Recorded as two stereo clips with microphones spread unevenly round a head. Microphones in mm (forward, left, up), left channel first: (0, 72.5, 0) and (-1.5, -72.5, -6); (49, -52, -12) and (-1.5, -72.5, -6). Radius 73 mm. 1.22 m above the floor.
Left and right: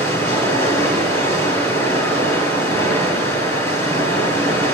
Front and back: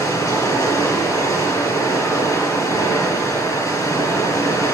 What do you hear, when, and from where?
0.0 s running water: 20° left, 6 m